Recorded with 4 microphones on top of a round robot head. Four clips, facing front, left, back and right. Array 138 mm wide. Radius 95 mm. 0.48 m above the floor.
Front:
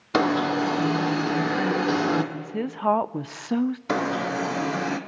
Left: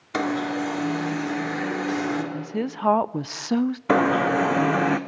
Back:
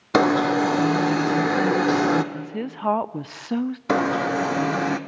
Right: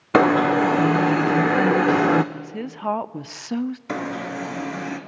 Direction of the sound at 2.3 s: 85° left.